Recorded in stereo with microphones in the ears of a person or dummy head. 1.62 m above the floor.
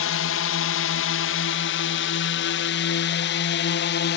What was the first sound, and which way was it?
A drone, 65° left (ahead or behind).